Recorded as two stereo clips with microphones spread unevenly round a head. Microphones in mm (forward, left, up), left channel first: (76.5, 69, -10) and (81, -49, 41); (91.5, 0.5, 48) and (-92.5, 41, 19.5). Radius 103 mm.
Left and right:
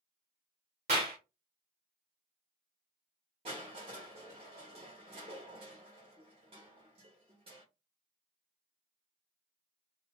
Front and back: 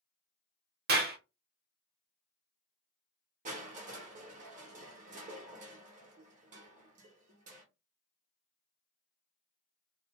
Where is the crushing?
135° right, 0.8 m.